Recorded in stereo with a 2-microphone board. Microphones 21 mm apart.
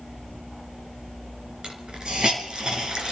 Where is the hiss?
40° right (ahead or behind), 3 m.